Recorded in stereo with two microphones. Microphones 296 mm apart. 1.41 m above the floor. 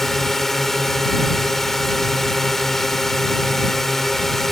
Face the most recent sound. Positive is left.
turn(degrees=0)  # may be behind; listen again after turning